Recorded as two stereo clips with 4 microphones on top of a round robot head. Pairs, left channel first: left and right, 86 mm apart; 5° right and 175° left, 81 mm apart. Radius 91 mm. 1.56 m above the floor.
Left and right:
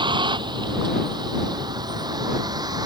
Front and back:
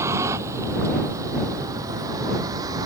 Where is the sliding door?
I don't hear a sliding door.